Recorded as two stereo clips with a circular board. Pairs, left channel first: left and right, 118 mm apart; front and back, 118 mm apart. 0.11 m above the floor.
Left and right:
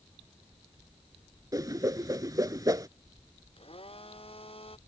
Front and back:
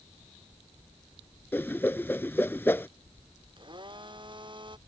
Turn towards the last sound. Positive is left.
turn(degrees=130)